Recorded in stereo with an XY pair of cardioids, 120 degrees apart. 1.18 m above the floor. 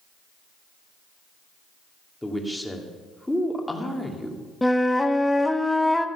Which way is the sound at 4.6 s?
5° left.